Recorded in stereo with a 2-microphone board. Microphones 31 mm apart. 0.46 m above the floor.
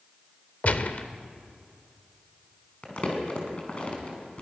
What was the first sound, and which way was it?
A gunshot, 50° left (ahead or behind).